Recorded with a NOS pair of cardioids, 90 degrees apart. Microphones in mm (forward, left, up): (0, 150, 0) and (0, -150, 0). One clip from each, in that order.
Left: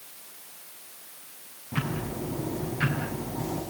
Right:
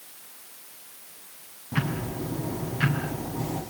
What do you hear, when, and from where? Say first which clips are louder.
1.7 s ticking: right 2 dB; 15° right, 6.5 m